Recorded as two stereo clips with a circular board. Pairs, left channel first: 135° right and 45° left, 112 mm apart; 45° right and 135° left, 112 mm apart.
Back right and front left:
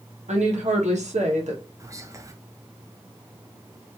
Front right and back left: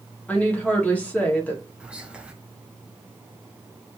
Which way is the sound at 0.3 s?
30° left.